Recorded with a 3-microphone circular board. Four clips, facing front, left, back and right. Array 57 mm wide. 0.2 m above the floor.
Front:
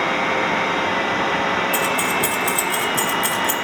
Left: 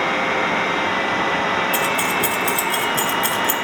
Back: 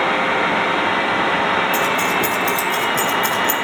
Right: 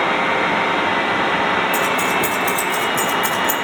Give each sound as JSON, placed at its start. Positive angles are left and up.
{"t": 1.7, "sound": "keys jangling", "azimuth_deg": 80, "distance_m": 1.7}